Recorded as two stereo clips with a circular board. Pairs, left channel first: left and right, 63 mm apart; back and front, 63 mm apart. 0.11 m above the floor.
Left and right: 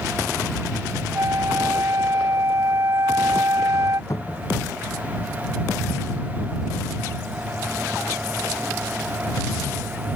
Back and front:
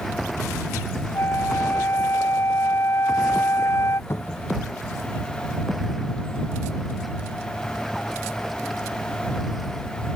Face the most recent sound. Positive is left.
turn(degrees=130)